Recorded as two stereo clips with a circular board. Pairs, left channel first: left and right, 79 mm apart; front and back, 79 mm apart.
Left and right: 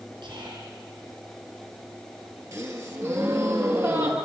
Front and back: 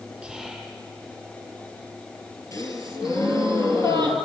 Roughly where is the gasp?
Ahead right.